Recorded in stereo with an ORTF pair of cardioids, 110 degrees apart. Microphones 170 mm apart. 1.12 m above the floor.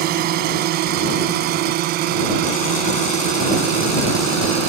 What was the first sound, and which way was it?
A drone, 65° right.